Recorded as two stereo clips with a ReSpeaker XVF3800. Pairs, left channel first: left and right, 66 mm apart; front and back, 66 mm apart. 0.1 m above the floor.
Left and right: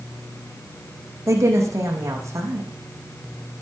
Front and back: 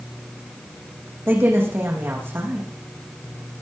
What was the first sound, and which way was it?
A woman speaking, 125° right.